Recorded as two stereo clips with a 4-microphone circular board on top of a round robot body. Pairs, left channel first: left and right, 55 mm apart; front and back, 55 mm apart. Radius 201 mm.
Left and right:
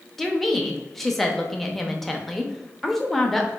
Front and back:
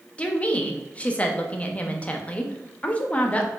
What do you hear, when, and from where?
0.2 s a woman speaking: 5° left, 0.8 m